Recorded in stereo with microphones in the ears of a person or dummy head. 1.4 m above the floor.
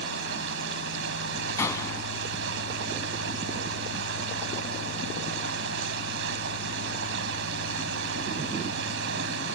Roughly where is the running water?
Right.